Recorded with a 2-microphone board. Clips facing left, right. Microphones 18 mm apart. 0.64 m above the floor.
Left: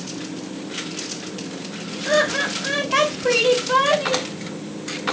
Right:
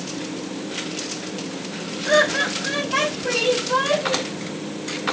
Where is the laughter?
5° right (ahead or behind), 1.0 m; by 4.3 s 55° left (ahead or behind), 1.5 m.